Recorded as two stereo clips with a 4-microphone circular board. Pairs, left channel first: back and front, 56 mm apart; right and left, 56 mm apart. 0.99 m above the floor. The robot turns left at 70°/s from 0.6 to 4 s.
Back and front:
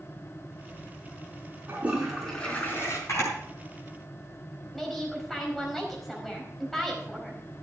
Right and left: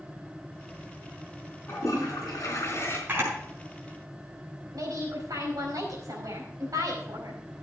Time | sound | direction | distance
1.7 | a toilet flushing | 55° right | 3.5 m
3.1 | a camera shutter | 145° left | 5.5 m
4.7 | a woman speaking | 95° left | 4.5 m